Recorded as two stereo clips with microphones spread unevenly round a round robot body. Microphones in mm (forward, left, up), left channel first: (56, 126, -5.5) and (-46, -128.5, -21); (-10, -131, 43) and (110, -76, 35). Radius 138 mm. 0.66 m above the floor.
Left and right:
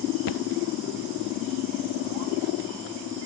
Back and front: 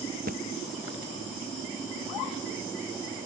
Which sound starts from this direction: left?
A thud, at 0.3 s.